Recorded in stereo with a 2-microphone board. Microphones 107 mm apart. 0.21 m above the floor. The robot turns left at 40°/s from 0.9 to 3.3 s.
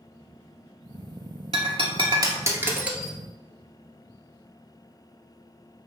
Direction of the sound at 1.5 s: 65° right (ahead or behind).